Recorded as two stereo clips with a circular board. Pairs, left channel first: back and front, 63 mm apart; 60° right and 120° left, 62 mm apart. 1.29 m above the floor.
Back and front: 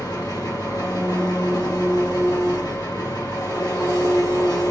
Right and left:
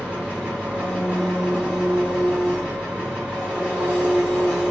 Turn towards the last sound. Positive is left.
turn(degrees=-170)